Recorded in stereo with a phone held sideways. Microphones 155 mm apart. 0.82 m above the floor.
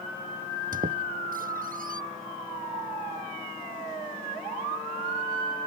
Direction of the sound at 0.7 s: 65° right (ahead or behind).